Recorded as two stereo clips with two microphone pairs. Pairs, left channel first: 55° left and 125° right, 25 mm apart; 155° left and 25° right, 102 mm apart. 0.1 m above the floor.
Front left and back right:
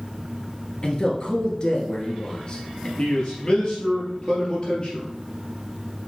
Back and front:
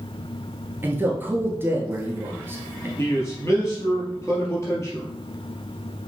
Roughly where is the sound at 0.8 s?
Ahead left.